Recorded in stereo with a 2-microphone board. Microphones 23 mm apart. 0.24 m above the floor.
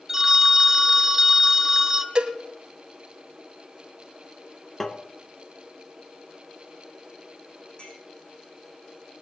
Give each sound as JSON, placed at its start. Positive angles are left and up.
{"t": 0.1, "sound": "a phone ringing", "side_deg": -15, "distance_m": 1.1}
{"t": 2.1, "sound": "a cowbell", "side_deg": -35, "distance_m": 1.8}
{"t": 4.8, "sound": "tapping", "side_deg": 20, "distance_m": 1.2}
{"t": 7.8, "sound": "a clink", "side_deg": 50, "distance_m": 7.0}